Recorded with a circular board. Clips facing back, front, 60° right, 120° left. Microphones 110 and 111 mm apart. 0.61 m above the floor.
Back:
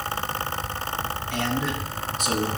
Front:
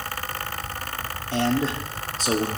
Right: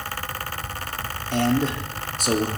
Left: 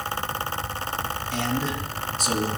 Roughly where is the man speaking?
Ahead right.